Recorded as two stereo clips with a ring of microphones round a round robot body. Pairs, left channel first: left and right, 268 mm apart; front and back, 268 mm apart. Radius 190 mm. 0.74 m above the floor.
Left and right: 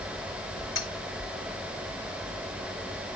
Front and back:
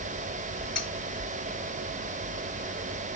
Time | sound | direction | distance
0.8 | cutlery clinking | 50° left | 7 m